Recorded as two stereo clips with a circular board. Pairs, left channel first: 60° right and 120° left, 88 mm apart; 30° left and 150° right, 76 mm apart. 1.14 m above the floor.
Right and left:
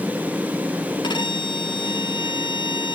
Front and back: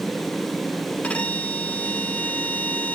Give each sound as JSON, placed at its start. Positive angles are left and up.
{"t": 1.0, "sound": "a violin", "azimuth_deg": -40, "distance_m": 1.4}